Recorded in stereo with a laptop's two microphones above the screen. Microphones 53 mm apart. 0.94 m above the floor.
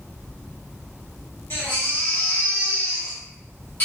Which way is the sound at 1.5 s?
45° left (ahead or behind).